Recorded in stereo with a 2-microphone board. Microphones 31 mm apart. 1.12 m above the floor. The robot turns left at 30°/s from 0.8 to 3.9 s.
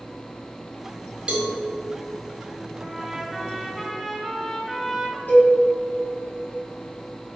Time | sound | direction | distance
1.3 | a cowbell | 30° right (ahead or behind) | 1.3 m
2.8 | a trumpet | 160° right | 1.2 m
5.3 | a cowbell | 75° left (ahead or behind) | 2 m